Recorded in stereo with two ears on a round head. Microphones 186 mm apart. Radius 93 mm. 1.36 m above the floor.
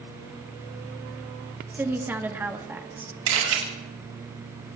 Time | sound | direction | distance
1.7 | a woman speaking | 10° right (ahead or behind) | 1.4 m
3.3 | a camera shutter | 85° right | 6.5 m